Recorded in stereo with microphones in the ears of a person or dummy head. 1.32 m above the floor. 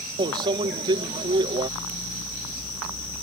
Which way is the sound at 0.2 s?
30° right (ahead or behind).